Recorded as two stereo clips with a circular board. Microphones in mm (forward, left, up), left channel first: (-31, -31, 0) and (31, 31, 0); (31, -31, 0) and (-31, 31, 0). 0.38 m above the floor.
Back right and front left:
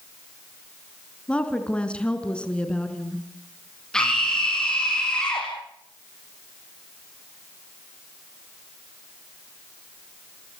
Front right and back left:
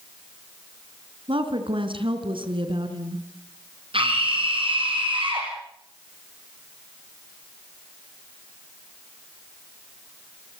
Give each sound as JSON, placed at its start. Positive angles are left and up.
{"t": 1.3, "sound": "a woman speaking", "azimuth_deg": 145, "distance_m": 4.5}
{"t": 3.9, "sound": "a scream", "azimuth_deg": 140, "distance_m": 6.5}